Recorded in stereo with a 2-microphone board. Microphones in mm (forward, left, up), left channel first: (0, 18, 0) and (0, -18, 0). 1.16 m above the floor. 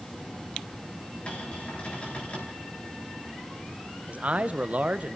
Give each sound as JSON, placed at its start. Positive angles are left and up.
{"t": 1.3, "sound": "a cupboard door", "side_deg": 35, "distance_m": 6.0}
{"t": 4.1, "sound": "a man speaking", "side_deg": -40, "distance_m": 1.0}